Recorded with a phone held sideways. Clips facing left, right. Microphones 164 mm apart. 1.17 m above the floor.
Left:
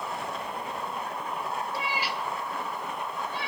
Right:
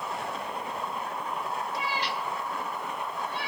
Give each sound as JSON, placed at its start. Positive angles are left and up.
{"t": 1.7, "sound": "a cat meowing", "side_deg": 30, "distance_m": 0.7}